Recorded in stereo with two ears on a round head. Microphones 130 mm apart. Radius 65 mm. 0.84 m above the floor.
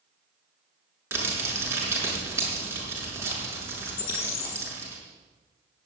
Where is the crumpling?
20° right (ahead or behind), 6.5 m.